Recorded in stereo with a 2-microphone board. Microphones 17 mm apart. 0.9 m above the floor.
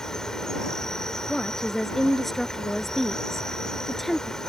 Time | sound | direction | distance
0.0 | an insect | 30° left (ahead or behind) | ?
1.3 | a woman speaking | 5° left (ahead or behind) | ?